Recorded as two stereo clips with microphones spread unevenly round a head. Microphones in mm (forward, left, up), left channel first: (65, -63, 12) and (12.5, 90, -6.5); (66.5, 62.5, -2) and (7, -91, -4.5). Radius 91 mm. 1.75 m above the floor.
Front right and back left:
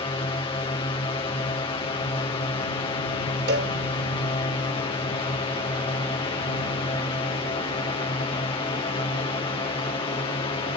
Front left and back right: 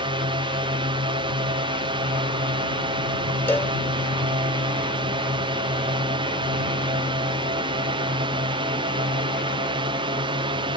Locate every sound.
0.0 s a drone: 105° right
3.5 s a cowbell: 150° left